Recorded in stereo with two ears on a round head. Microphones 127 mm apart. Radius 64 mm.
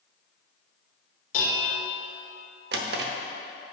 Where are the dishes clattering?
65° left (ahead or behind), 1.6 m.